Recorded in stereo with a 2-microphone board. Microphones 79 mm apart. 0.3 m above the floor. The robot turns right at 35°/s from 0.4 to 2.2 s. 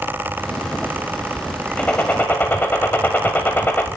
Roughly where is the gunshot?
Centre.